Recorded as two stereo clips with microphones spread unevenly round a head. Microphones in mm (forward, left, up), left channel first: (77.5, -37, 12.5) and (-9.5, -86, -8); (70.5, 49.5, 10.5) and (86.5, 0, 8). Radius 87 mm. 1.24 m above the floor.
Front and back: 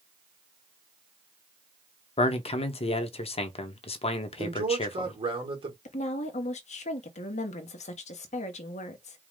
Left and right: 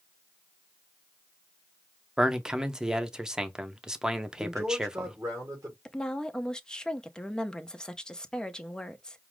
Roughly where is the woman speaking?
Ahead left.